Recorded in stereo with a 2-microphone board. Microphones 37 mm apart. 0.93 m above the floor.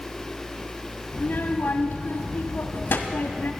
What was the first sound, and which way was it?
A child speaking, 75° left (ahead or behind).